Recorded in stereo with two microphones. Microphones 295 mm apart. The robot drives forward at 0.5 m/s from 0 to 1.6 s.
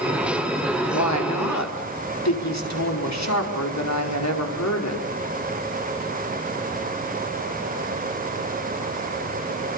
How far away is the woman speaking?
About 4.5 m.